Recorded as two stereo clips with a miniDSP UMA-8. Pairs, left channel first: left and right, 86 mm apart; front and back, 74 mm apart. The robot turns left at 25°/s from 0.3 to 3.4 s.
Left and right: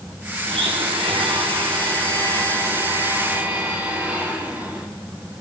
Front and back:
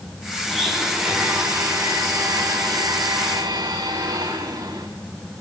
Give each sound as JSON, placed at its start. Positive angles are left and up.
{"t": 0.5, "sound": "a blender", "azimuth_deg": -85, "distance_m": 7.5}